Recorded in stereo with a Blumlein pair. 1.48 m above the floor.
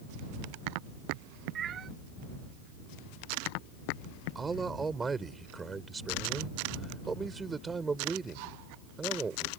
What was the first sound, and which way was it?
A cat meowing, 25° right.